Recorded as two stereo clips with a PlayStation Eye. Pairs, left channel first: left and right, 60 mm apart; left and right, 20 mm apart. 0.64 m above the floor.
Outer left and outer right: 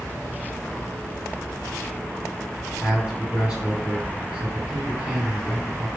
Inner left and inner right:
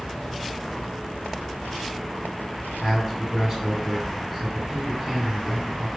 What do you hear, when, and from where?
2.8 s a man speaking: 15° right (ahead or behind), 2.5 m